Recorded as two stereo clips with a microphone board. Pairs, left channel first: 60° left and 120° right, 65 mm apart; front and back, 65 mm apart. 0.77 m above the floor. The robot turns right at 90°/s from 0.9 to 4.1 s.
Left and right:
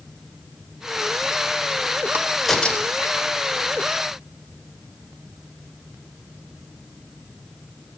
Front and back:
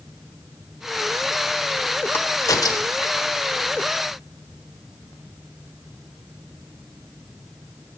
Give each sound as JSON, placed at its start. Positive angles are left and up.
{"t": 2.1, "sound": "a crack", "azimuth_deg": -60, "distance_m": 1.0}